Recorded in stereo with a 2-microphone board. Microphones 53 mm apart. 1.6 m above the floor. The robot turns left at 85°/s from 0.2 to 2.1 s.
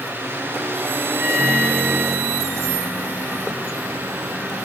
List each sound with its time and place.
1.2 s a microwave: 70° right, 2 m; by 4.6 s 145° right, 2 m